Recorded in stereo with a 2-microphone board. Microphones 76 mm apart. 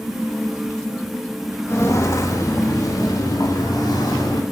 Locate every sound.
1.7 s footsteps: 40° left (ahead or behind), 1.9 m; by 4.4 s 70° left (ahead or behind), 3.5 m